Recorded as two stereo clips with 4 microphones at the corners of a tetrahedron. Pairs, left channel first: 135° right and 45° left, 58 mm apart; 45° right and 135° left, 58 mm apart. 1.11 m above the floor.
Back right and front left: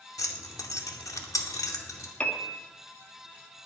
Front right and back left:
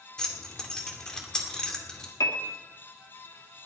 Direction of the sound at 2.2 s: 65° right.